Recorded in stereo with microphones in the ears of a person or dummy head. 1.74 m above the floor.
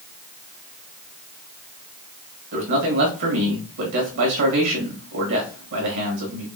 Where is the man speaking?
65° right (ahead or behind), 1.9 m.